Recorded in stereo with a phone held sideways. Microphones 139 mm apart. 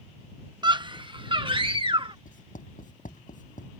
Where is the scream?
30° right (ahead or behind); by 2.1 s 40° right (ahead or behind).